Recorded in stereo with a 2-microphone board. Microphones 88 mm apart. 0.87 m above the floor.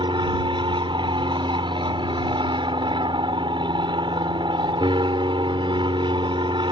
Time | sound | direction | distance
0.0 | an aircraft | 65° right (ahead or behind) | ?